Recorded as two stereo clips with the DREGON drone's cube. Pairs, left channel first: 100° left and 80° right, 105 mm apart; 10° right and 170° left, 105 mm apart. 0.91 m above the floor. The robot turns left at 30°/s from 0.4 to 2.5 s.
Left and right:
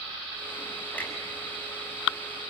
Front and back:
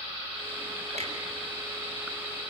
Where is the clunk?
Straight behind, 6.5 m; by 1.1 s 175° left, 6.5 m.